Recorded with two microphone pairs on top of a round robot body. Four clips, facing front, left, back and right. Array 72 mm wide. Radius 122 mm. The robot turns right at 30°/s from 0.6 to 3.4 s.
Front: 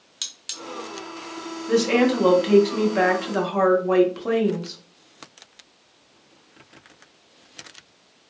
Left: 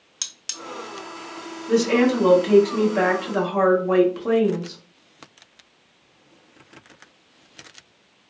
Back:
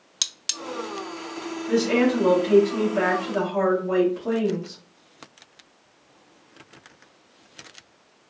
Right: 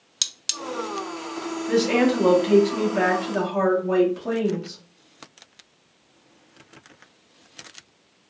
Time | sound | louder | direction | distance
0.2 | cutlery clinking | right 5 dB, back 4 dB | 170° left | 0.5 m
1.7 | a woman speaking | left 2 dB, front 2 dB | 25° right | 1.3 m